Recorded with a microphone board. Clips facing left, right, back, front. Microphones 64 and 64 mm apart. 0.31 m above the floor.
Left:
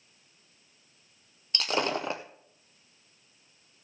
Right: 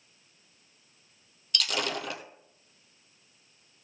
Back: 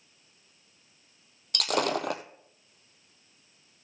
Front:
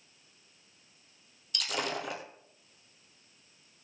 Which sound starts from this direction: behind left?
Breaking glass, at 1.5 s.